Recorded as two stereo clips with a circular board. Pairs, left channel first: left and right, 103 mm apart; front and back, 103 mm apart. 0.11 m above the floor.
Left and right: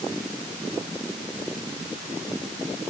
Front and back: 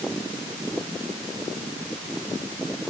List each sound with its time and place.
Only background noise.